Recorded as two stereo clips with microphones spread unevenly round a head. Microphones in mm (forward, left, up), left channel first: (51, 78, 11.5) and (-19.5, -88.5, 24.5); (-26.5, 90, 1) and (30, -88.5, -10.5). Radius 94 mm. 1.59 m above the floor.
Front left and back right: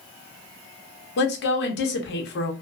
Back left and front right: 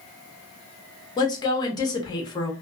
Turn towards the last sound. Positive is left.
turn(degrees=40)